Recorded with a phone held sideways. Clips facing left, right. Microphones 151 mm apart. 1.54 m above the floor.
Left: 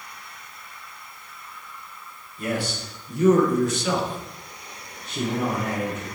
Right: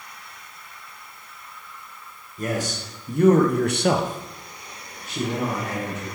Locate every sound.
2.4 s a man speaking: 40° right (ahead or behind), 1.2 m; by 6.0 s 5° left (ahead or behind), 1.7 m